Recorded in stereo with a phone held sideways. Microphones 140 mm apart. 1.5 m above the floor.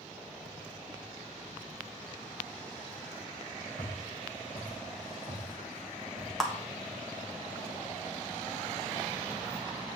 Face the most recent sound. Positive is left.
turn(degrees=0)  # may be behind; listen again after turning